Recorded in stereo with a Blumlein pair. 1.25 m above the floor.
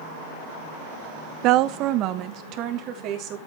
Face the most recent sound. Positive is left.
turn(degrees=-35)